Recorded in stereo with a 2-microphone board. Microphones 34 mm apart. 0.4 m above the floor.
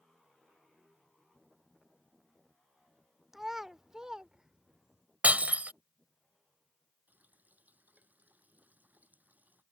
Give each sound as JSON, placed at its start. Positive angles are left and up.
{"t": 3.3, "sound": "a child speaking", "side_deg": -10}
{"t": 5.2, "sound": "breaking glass", "side_deg": -45}
{"t": 7.1, "sound": "a running tap", "side_deg": -50}